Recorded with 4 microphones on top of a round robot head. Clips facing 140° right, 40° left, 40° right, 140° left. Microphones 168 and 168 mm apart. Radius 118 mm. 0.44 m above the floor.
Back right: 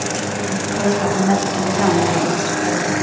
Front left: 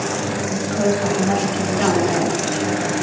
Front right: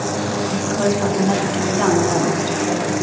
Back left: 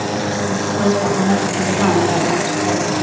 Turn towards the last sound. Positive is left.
turn(degrees=-130)